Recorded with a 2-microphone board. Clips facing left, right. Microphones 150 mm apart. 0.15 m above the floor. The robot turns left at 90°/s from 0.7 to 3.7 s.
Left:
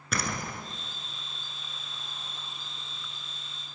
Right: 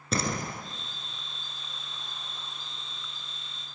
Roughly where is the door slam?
Right.